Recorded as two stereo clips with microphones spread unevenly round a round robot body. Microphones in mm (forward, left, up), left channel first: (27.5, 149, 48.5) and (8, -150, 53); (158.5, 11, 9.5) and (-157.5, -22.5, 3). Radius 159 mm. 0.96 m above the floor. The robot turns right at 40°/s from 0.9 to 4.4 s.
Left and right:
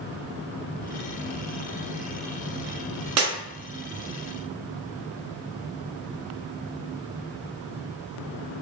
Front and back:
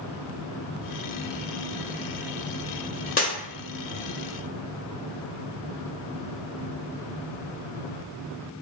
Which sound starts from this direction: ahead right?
Breaking glass, at 3.2 s.